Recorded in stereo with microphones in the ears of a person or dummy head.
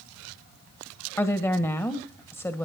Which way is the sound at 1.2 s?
5° left (ahead or behind).